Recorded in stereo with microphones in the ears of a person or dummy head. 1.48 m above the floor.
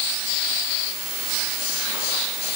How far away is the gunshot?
No gunshot in this recording.